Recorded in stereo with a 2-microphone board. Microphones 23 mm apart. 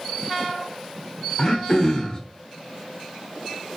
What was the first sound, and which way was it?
Throat clearing, 35° left (ahead or behind).